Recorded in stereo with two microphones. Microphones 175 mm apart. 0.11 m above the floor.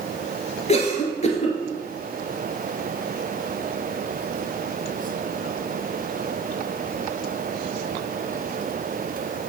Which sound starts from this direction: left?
A cough, at 0.7 s.